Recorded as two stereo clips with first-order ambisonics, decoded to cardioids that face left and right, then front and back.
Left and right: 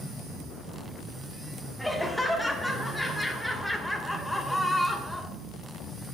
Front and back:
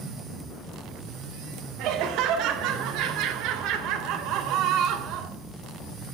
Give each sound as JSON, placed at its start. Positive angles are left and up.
{"t": 1.8, "sound": "laughter", "azimuth_deg": 180, "distance_m": 1.1}